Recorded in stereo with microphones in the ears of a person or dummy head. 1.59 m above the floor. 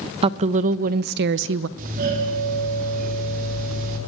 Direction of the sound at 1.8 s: 45° right (ahead or behind).